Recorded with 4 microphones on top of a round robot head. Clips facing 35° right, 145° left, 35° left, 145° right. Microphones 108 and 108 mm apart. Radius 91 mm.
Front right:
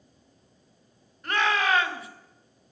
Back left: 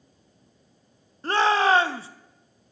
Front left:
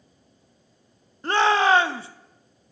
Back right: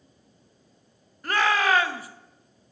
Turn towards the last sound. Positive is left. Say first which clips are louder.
# back left 5 dB, front left 4 dB
turn(degrees=90)